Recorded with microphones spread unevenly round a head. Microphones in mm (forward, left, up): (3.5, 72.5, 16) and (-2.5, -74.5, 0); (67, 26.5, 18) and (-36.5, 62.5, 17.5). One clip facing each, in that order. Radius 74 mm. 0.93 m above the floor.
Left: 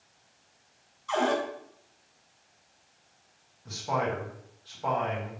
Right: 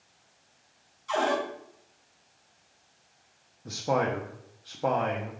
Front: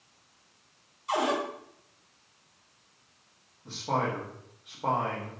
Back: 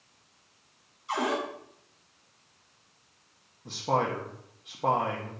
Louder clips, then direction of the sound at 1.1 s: Even, front 2 dB; 20° right.